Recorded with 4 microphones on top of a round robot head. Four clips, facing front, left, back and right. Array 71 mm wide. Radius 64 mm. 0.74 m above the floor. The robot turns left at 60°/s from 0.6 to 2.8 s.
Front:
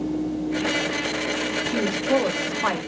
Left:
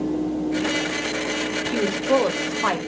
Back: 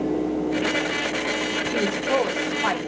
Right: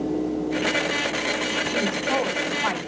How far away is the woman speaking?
About 4 m.